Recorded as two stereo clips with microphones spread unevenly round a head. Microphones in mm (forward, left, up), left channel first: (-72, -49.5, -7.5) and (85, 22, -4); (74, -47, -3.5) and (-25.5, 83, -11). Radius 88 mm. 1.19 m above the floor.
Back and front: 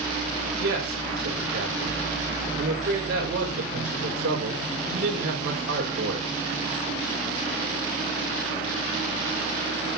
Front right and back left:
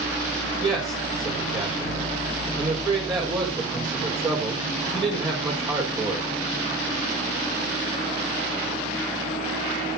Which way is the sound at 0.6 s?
65° left.